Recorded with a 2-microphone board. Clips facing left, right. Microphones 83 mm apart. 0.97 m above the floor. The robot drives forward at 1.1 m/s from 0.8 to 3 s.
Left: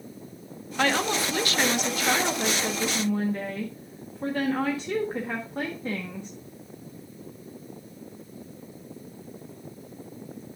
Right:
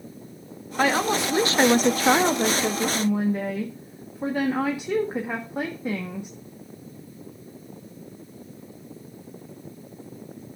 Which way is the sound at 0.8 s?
15° right (ahead or behind).